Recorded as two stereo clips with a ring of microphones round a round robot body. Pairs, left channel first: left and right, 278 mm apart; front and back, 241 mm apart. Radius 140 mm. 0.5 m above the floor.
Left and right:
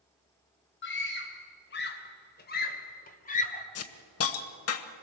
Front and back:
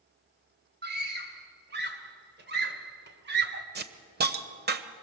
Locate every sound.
0.8 s a scream: 135° left, 3.5 m; by 3.6 s 150° left, 2 m
3.8 s a hiss: 130° left, 1.2 m